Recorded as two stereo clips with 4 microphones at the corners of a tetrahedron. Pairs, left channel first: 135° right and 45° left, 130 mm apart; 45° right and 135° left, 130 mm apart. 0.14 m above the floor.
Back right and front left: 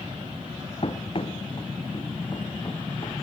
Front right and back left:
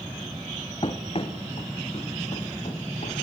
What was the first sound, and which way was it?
Running footsteps, 90° right.